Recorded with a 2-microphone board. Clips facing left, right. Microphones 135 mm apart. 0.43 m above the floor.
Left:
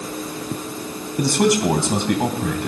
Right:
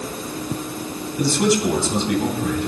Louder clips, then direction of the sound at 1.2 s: Left 1 dB; 65° left (ahead or behind).